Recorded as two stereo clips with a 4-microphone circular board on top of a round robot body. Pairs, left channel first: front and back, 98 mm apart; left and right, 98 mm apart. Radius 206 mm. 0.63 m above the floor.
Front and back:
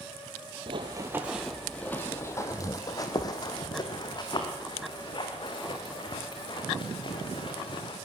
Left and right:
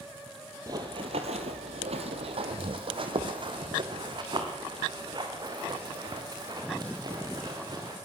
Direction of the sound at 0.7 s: 145° right.